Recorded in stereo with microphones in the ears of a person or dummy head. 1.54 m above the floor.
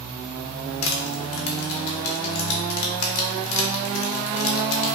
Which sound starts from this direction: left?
Crushing, at 0.8 s.